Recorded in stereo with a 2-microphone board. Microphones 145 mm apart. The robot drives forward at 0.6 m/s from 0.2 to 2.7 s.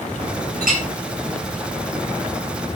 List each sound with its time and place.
0.6 s a clink: 75° right (ahead or behind), 3.5 m